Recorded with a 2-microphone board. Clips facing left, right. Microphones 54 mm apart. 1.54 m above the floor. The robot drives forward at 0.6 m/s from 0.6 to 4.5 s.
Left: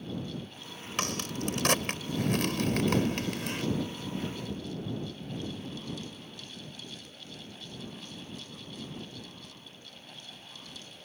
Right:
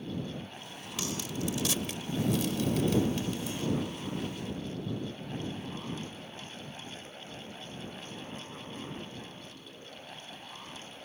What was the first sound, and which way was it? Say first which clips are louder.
A crack: left 2 dB; 55° left (ahead or behind).